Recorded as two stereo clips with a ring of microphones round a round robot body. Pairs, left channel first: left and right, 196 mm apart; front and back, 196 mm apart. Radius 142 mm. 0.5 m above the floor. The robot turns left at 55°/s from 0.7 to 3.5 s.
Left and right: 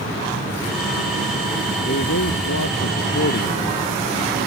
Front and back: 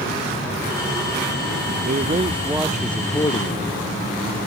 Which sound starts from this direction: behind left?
A man speaking, at 1.9 s.